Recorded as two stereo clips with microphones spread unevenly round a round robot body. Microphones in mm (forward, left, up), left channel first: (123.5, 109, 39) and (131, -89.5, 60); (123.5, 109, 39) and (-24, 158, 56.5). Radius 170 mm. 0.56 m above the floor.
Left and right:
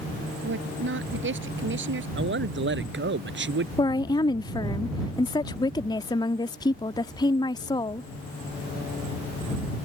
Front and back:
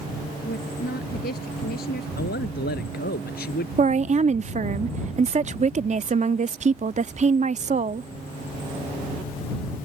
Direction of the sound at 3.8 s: 140° left.